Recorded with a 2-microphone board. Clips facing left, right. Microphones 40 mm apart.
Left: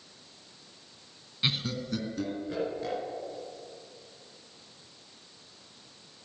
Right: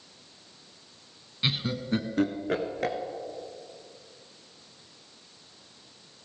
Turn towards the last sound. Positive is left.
turn(degrees=-65)  # may be behind; listen again after turning